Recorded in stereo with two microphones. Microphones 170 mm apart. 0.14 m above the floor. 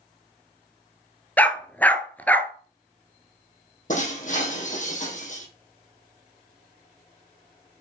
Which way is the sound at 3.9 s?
50° left (ahead or behind).